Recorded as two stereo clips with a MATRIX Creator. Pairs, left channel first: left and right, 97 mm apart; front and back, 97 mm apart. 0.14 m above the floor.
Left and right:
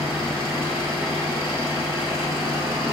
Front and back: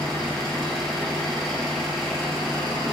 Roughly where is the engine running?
Left.